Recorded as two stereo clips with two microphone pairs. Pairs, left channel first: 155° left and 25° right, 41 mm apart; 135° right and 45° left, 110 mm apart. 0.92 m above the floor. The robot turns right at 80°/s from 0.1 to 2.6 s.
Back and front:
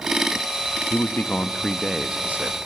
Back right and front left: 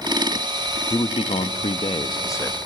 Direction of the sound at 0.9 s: 175° left.